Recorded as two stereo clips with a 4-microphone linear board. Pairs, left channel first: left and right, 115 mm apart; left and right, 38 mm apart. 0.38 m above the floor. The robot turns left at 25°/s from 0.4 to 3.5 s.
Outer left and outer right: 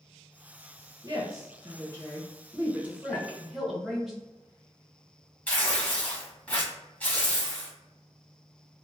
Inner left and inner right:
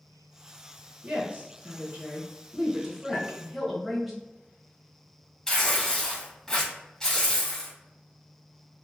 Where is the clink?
30° left (ahead or behind), 1.0 m; by 3.3 s 35° left (ahead or behind), 1.0 m.